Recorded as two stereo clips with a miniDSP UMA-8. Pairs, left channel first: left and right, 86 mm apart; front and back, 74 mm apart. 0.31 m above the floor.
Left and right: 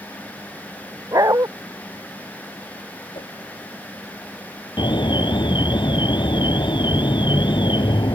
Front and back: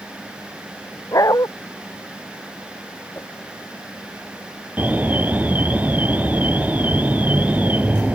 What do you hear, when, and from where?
1.1 s a dog barking: 40° right
3.1 s a whoosh: 65° left
4.8 s an alarm: 110° left